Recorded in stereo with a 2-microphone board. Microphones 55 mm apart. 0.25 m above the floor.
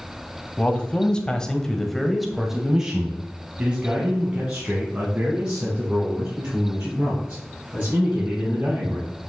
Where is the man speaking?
20° left (ahead or behind), 1.3 m; by 9.1 s 25° right (ahead or behind), 5 m.